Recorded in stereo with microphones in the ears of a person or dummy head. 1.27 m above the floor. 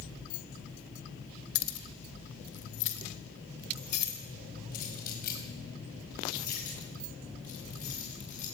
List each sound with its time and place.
1.6 s keys jangling: 80° left, 2 m; by 8.4 s 45° left (ahead or behind), 9 m